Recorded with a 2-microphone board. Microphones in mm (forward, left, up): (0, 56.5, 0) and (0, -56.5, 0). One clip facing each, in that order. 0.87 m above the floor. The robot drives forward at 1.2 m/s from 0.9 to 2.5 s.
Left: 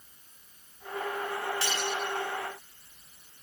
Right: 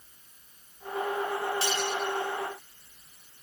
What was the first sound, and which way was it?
Cutlery clinking, 30° right (ahead or behind).